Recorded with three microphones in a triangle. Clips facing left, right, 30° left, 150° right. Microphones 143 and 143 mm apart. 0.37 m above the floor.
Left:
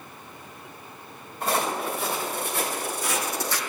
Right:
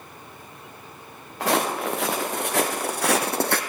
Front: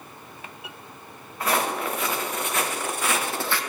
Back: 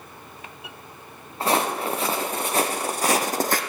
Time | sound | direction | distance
1.4 | footsteps | 90° right | 2.0 m